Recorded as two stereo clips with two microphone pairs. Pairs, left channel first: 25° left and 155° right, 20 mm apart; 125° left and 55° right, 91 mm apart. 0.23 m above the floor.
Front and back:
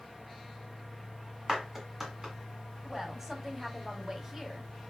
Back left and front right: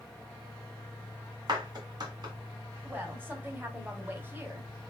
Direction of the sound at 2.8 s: 95° right.